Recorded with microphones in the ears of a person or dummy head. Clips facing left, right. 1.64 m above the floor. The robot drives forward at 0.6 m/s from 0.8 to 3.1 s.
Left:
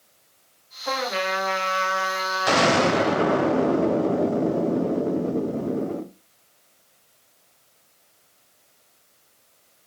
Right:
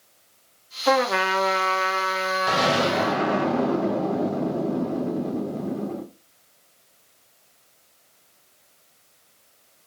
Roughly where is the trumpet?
Right.